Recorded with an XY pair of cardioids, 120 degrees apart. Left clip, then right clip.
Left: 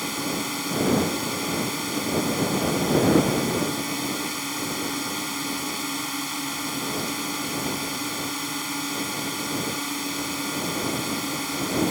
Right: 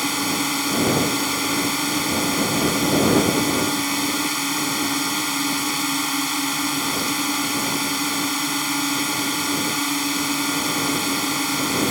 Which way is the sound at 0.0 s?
35° right.